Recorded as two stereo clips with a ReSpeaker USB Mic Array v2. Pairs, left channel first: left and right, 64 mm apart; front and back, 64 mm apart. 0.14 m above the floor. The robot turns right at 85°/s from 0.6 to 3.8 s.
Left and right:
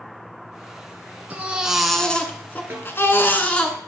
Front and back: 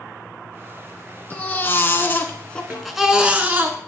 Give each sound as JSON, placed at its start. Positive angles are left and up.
{"t": 1.3, "sound": "a baby crying", "azimuth_deg": -45, "distance_m": 1.0}
{"t": 2.7, "sound": "a snare drum", "azimuth_deg": -130, "distance_m": 2.5}